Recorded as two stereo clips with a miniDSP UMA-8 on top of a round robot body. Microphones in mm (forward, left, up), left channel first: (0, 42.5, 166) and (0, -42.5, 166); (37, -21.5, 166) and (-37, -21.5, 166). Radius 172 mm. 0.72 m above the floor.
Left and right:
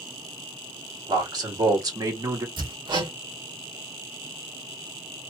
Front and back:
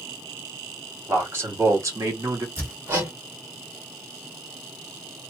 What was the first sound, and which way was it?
A man speaking, 120° right.